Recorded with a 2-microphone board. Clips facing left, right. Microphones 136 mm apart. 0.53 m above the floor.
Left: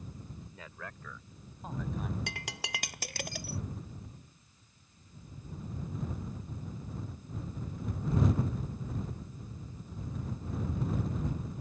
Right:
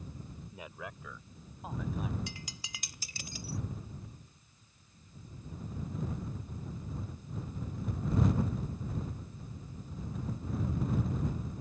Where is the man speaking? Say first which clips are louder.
Right 6 dB; 20° right (ahead or behind); by 2.2 s 5° right (ahead or behind).